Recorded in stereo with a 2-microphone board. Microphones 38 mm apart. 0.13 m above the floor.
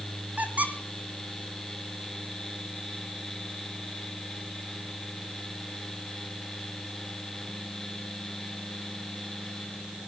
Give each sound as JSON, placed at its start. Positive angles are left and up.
{"t": 0.4, "sound": "a squeak", "side_deg": -45, "distance_m": 2.0}